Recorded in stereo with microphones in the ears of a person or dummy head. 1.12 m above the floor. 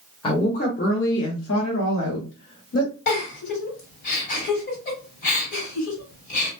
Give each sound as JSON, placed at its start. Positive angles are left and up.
{"t": 0.2, "sound": "a woman speaking", "side_deg": 30, "distance_m": 0.7}
{"t": 3.1, "sound": "a giggle", "side_deg": 45, "distance_m": 1.5}